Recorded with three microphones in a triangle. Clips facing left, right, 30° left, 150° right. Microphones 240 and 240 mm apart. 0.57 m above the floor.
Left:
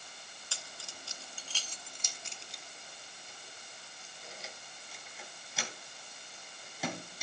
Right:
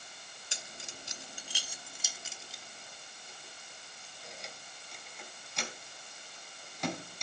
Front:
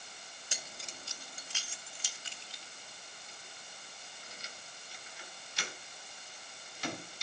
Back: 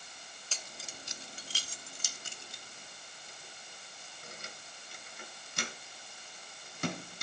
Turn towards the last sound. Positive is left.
turn(degrees=175)